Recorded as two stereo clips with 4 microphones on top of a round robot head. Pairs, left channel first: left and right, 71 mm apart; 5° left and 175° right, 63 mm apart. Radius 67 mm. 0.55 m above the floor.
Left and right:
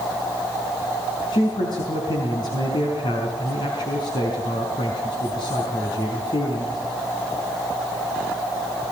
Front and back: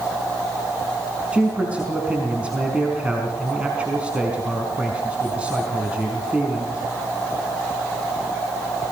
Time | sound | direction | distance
1.3 | a man speaking | 115° left | 5 m